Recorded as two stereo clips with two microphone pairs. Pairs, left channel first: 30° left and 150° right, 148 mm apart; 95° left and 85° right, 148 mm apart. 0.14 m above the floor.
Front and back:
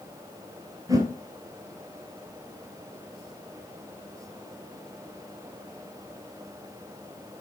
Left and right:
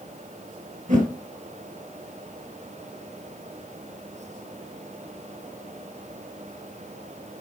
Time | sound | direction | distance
0.9 | a whoosh | 85° right | 3 m